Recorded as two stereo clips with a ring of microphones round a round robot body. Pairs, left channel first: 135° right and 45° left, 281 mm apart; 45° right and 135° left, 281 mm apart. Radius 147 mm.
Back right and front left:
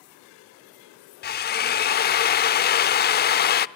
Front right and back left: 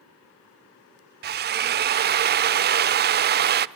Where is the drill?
Straight behind, 0.7 m.